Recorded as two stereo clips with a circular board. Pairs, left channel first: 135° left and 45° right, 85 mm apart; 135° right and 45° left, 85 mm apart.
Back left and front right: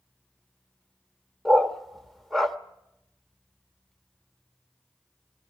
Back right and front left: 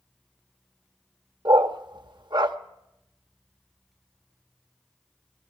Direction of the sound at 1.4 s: 45° left.